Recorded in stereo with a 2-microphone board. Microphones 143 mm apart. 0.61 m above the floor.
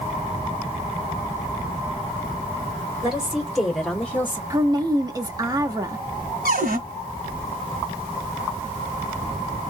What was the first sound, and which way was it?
A woman speaking, 5° right (ahead or behind).